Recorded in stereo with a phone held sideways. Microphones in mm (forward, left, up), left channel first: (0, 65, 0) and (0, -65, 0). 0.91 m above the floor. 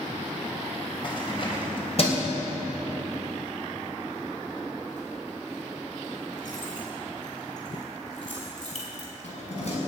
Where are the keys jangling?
40° left (ahead or behind), 3.5 m; by 9.8 s 60° left (ahead or behind), 6.5 m.